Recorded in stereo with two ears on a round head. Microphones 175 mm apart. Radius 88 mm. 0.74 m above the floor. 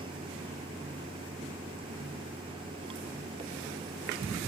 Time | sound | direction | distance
0.0 | running water | 25° right (ahead or behind) | ?